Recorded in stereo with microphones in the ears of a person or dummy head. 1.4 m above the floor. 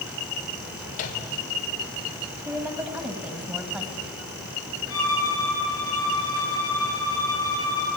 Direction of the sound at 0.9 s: 45° left (ahead or behind).